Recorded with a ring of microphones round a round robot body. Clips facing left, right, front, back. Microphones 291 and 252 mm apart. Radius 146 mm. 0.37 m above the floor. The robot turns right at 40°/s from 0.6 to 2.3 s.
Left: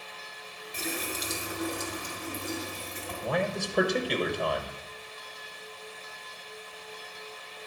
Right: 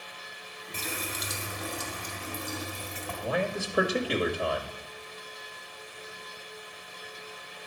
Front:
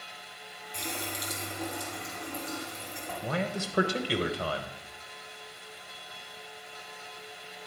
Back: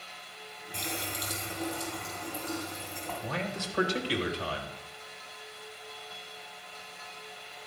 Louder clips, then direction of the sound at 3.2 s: Even, front 4 dB; 5° right.